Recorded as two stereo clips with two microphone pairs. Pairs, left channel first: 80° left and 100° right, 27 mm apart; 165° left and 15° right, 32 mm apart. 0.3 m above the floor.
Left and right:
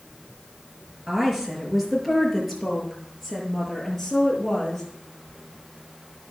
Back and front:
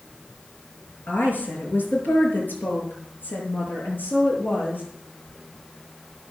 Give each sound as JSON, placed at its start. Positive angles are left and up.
{"t": 1.1, "sound": "a woman speaking", "azimuth_deg": 180, "distance_m": 5.5}